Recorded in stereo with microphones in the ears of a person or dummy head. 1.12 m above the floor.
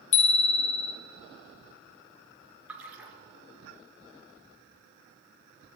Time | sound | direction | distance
0.1 | a bicycle bell | 40° left (ahead or behind) | 3 m
2.7 | a splash | 10° right (ahead or behind) | 3.5 m